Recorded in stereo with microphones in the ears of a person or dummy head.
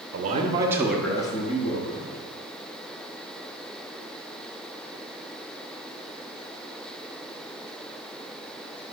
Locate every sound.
0.1 s a man speaking: 50° right (ahead or behind), 0.8 m; by 2.2 s 45° left (ahead or behind), 1.3 m